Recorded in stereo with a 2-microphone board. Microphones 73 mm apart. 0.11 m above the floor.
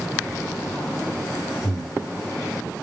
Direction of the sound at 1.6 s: 5° left (ahead or behind).